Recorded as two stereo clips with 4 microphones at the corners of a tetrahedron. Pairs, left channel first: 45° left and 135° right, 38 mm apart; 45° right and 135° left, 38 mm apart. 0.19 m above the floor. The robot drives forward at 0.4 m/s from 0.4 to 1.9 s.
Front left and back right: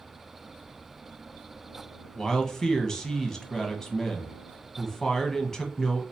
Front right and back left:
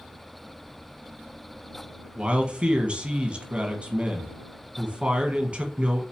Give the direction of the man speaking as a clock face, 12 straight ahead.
8 o'clock.